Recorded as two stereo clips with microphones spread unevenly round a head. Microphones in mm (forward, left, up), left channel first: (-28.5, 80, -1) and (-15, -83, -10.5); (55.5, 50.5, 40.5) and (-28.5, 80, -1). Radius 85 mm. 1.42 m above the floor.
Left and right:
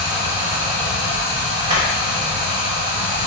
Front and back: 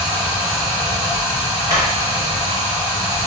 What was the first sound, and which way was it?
Running water, 140° right.